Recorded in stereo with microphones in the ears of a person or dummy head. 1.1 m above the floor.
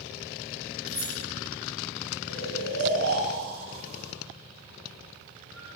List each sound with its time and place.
0.9 s keys jangling: 5° left (ahead or behind), 2 m
2.3 s snoring: 85° right, 4.5 m